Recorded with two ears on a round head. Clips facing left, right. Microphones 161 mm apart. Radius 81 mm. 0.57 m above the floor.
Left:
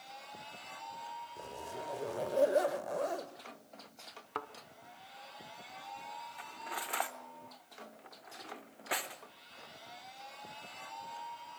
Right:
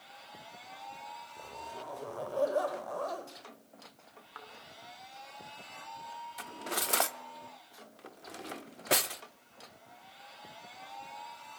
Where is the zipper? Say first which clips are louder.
Left 1 dB; 25° left (ahead or behind), 1.8 m.